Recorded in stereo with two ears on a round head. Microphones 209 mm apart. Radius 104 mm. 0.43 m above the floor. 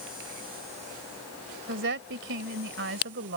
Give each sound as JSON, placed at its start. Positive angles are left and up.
{"t": 1.7, "sound": "a woman speaking", "side_deg": -55}